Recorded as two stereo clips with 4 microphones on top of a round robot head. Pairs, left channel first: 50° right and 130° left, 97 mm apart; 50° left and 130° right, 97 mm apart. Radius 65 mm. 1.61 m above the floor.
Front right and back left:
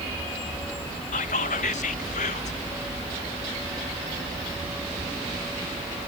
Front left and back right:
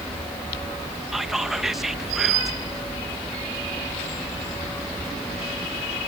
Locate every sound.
1.1 s whispering: 45° right